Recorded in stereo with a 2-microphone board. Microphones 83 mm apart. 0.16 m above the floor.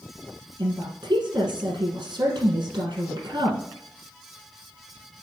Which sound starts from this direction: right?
A woman speaking, at 0.6 s.